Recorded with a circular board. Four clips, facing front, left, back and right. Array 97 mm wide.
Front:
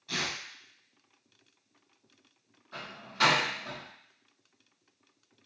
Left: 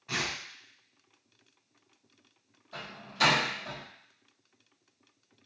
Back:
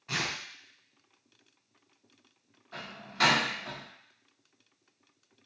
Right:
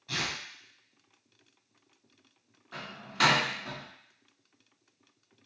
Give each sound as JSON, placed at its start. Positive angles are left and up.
{"t": 0.1, "sound": "tearing paper", "azimuth_deg": 145, "distance_m": 1.1}
{"t": 2.7, "sound": "a door slam", "azimuth_deg": -95, "distance_m": 1.9}